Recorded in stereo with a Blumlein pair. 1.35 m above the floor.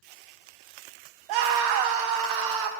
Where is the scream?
40° right, 1.1 m.